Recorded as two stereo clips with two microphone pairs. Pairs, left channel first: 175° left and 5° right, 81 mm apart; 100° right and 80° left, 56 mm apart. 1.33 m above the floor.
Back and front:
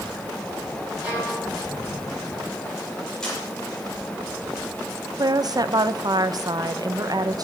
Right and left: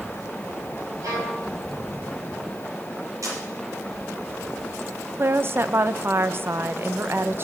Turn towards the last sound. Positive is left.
turn(degrees=30)